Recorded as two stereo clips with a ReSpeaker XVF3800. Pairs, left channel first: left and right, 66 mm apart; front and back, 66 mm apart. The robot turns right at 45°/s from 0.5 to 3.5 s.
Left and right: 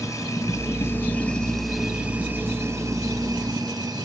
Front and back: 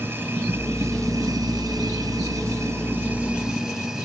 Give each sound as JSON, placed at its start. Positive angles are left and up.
{"t": 0.0, "sound": "running water", "azimuth_deg": 125, "distance_m": 2.5}